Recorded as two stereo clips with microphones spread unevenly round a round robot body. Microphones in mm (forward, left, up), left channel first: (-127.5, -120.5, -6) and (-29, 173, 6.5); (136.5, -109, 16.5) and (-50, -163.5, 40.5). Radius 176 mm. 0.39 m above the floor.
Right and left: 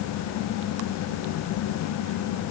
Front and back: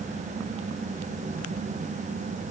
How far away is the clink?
I don't hear a clink.